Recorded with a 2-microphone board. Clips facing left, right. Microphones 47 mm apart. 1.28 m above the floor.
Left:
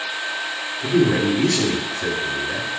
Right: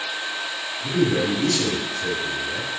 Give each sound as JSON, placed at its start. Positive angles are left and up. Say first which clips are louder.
{"t": 0.8, "sound": "a man speaking", "louder": "left 4 dB", "side_deg": 80, "distance_m": 2.5}